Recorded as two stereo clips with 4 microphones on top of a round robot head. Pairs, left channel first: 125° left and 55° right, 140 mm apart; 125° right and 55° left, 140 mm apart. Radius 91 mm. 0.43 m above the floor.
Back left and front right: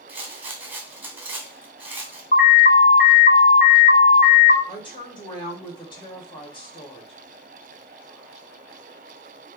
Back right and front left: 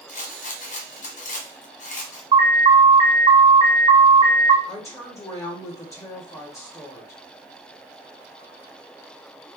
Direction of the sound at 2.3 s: 110° left.